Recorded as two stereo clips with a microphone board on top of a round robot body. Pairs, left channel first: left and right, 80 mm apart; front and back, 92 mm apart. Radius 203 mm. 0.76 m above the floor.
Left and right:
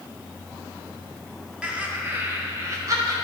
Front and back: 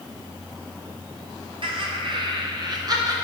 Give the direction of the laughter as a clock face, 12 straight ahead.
6 o'clock.